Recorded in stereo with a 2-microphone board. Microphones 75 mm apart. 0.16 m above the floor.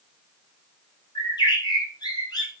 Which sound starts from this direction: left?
A bird, at 1.1 s.